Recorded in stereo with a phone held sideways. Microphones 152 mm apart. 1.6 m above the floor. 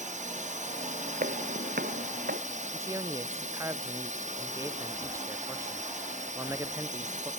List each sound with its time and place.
0.0 s a drone: 55° right (ahead or behind)
1.2 s footsteps: 80° right
2.7 s a man speaking: 20° right (ahead or behind)